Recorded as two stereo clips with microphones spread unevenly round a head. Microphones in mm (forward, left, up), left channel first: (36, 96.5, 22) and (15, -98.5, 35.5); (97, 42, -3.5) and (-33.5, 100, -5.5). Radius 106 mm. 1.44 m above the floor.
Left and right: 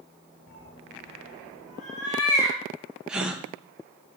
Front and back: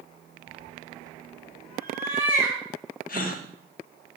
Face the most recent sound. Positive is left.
turn(degrees=-10)